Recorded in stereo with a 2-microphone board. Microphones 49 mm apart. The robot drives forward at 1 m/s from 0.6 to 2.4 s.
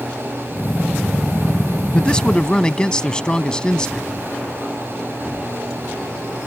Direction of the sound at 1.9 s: 20° left (ahead or behind).